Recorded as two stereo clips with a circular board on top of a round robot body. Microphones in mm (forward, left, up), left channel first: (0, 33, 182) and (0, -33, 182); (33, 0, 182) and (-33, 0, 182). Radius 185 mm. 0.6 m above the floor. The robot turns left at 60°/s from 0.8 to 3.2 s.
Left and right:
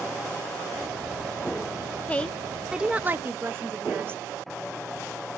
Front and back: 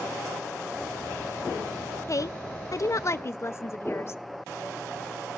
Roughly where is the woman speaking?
Ahead left.